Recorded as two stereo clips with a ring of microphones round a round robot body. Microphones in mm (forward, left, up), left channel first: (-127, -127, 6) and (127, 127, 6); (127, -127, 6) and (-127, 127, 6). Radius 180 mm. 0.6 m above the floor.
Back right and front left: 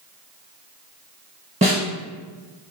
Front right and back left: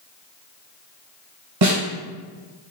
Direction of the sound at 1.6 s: 115° left.